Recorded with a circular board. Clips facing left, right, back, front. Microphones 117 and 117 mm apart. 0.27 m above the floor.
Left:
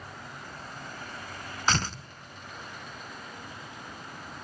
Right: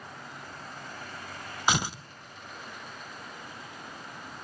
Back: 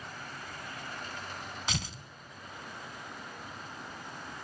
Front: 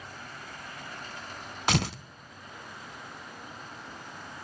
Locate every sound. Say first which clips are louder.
1.7 s tearing paper: right 1 dB, front 12 dB; 15° right, 0.6 m